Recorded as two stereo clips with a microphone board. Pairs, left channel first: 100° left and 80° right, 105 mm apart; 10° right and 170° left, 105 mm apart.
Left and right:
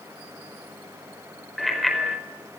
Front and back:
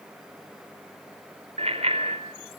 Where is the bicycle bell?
170° right, 4.5 m.